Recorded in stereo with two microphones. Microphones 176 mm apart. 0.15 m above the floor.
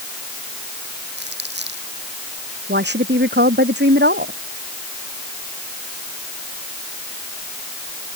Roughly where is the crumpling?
Right.